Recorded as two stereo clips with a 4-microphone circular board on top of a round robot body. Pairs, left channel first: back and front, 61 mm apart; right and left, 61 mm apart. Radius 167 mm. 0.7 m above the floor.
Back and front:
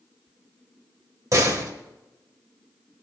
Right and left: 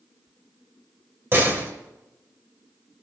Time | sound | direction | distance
1.3 | a door slam | 35° left | 2 m